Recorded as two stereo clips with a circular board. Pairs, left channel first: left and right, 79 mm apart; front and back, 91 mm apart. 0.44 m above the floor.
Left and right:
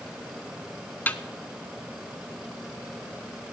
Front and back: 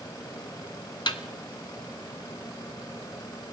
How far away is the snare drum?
About 0.7 m.